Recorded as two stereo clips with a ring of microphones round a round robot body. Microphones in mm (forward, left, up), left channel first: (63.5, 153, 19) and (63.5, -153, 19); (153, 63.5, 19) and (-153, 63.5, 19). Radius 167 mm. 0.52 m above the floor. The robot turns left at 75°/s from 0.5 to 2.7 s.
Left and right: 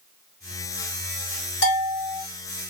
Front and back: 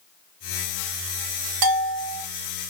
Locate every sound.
1.6 s a bell: 145° left, 1.5 m; by 2.2 s 100° left, 1.5 m